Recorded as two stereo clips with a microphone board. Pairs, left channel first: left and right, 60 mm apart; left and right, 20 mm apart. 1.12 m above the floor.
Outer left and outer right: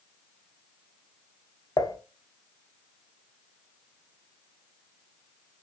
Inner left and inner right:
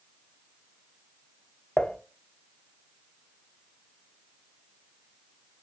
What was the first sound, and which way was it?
Dishes clattering, 80° left.